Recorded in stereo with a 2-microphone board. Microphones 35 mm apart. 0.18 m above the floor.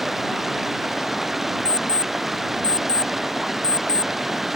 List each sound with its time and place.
0.0 s running water: 5° right (ahead or behind)
1.6 s an alarm clock: 30° left (ahead or behind)